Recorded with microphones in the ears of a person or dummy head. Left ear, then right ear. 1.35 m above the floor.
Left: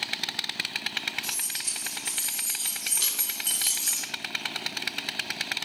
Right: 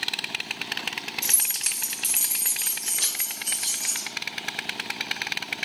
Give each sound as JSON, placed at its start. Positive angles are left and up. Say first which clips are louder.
{"t": 1.2, "sound": "keys jangling", "louder": "right 4 dB", "side_deg": -55, "distance_m": 1.2}